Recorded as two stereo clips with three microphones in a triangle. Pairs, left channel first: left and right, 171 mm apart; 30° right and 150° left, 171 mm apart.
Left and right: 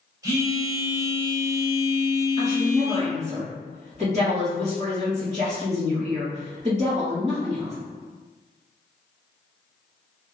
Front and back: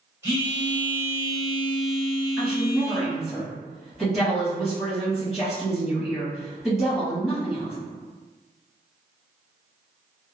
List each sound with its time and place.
0.2 s a phone buzzing: 145° right, 1.5 m
2.4 s a woman speaking: 120° right, 1.9 m